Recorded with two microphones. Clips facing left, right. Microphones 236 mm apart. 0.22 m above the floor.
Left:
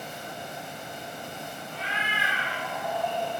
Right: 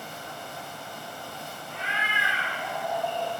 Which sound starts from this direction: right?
A cat meowing, at 1.7 s.